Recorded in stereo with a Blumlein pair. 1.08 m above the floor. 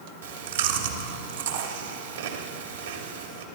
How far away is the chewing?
About 2.5 m.